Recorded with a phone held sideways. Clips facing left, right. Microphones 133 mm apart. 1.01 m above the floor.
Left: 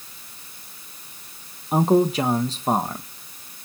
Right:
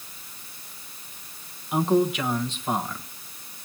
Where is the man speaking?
35° left (ahead or behind), 1.1 m.